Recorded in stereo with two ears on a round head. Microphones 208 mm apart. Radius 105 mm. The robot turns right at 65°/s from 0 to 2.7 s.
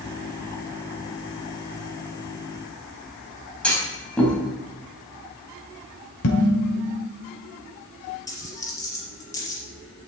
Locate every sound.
3.6 s a clunk: 5° left (ahead or behind), 4 m
6.2 s dishes clattering: 80° left, 2 m
8.3 s a dropped coin: 15° left (ahead or behind), 4.5 m